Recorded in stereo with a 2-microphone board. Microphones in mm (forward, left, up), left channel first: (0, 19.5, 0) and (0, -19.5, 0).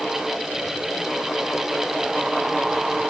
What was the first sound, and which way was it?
Only background noise.